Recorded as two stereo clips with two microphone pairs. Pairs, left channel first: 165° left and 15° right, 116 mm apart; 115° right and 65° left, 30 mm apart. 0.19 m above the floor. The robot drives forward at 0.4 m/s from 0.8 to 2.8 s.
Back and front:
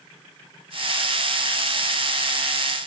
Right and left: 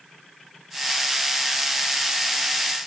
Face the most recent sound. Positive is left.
No sound to turn to.